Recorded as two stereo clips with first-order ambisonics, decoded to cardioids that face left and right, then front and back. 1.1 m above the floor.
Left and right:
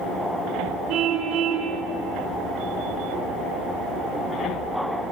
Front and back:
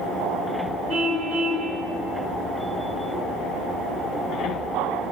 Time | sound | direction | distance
0.9 | a car horn | 130° right | 7 m